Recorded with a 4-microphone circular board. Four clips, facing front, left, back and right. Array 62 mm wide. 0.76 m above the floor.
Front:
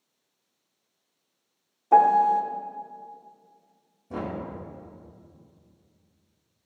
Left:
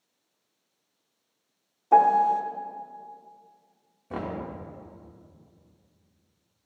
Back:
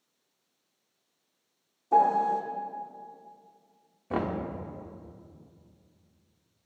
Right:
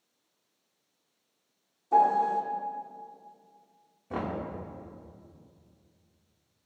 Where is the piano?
40° left, 0.9 m.